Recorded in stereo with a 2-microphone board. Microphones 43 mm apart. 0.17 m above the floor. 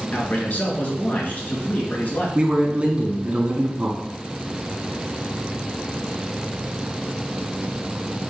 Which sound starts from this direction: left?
A man speaking, at 0.1 s.